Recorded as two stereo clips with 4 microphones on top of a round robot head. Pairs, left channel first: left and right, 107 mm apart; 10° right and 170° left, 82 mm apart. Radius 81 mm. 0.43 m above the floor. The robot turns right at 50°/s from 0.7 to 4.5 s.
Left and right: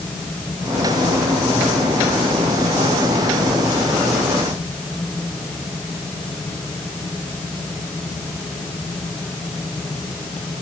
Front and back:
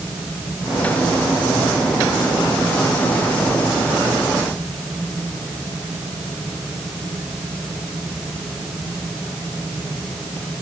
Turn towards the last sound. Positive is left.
No sound to turn to.